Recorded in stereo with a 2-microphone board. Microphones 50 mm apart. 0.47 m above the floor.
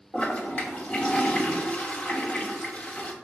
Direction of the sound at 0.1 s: 25° left (ahead or behind).